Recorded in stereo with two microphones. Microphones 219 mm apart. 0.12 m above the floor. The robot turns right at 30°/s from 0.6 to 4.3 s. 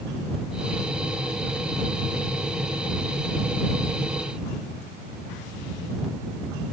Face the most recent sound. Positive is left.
No sound to turn to.